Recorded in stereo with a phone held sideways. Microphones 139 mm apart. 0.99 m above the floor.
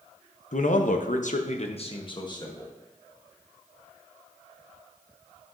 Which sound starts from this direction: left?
A man speaking, at 0.5 s.